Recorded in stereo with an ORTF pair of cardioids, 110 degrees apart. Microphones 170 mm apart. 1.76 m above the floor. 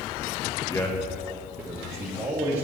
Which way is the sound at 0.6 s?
25° left.